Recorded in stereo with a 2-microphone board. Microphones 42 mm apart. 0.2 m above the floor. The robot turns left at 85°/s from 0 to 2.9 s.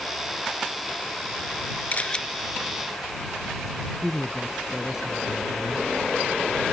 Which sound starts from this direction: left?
A camera shutter, at 1.9 s.